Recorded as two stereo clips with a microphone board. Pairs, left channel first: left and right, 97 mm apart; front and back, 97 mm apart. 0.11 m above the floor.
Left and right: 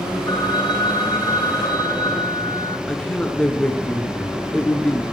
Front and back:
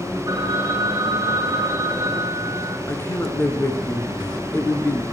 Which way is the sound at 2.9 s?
25° left.